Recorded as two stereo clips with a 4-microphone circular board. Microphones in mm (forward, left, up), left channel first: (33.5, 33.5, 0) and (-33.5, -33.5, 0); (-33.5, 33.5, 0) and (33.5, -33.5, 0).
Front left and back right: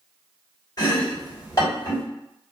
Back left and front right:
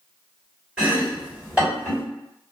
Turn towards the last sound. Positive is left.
turn(degrees=25)